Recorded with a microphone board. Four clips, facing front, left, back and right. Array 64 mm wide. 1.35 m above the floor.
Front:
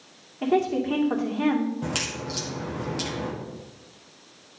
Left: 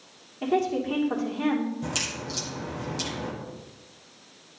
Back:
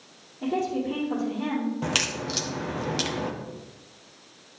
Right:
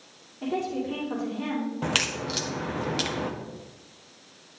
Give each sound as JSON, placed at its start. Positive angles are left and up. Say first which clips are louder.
{"t": 0.4, "sound": "a woman speaking", "louder": "left 4 dB, front 4 dB", "azimuth_deg": 25, "distance_m": 1.9}
{"t": 1.8, "sound": "a crack", "louder": "right 4 dB, back 2 dB", "azimuth_deg": -115, "distance_m": 0.9}